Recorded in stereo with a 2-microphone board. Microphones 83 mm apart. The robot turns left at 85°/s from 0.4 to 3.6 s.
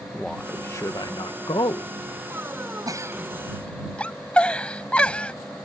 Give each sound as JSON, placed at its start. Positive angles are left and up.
{"t": 0.1, "sound": "a man speaking", "azimuth_deg": 170}
{"t": 2.9, "sound": "a giggle", "side_deg": -50}